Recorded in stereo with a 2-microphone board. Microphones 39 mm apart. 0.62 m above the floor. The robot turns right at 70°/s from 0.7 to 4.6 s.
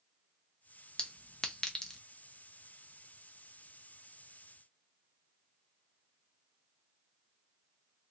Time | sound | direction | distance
1.0 | a clink | 25° left (ahead or behind) | 0.6 m